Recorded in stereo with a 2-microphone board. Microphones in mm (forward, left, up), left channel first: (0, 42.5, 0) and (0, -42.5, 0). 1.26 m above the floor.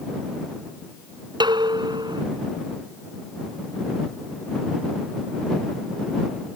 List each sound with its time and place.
1.4 s dishes clattering: 55° right (ahead or behind)